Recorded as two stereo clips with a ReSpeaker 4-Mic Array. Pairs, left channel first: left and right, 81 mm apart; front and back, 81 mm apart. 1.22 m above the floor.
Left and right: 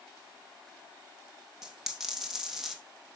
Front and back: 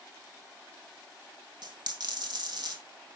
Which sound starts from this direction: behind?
A dropped coin, at 1.6 s.